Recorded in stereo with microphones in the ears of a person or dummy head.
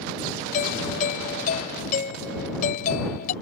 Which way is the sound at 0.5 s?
50° left (ahead or behind).